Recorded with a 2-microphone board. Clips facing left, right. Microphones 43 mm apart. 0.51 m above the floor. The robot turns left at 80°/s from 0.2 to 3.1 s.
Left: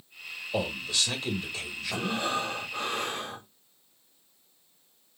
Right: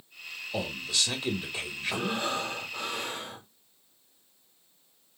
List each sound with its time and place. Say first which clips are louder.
0.5 s a man speaking: left 2 dB; 30° left, 1.6 m; by 2.3 s 110° right, 1.6 m
1.9 s breathing: left 1 dB; 155° right, 2.5 m; by 3.5 s 105° left, 2.5 m